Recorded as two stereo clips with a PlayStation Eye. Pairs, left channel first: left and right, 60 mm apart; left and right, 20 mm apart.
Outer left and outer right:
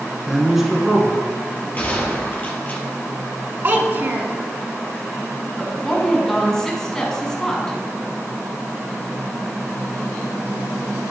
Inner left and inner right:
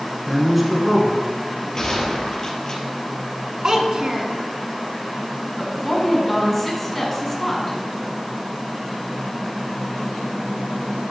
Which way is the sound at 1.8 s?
30° left (ahead or behind).